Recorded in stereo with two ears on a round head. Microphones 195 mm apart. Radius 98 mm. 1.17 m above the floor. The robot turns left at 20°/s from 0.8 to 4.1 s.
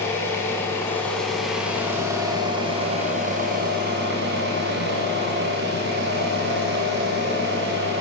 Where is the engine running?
10° left, 6.5 m; by 8.0 s 55° right, 6.5 m.